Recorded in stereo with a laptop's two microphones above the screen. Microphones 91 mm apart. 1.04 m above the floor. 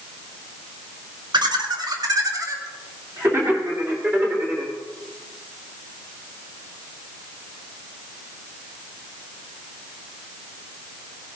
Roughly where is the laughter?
Right.